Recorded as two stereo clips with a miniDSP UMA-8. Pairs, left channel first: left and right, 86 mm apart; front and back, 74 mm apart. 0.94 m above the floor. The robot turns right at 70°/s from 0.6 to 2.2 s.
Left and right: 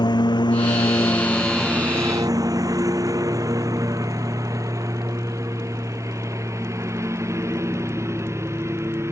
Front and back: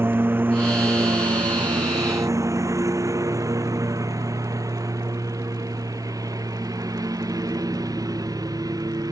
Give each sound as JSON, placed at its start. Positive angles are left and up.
{"t": 0.0, "sound": "a lawn mower", "azimuth_deg": 120}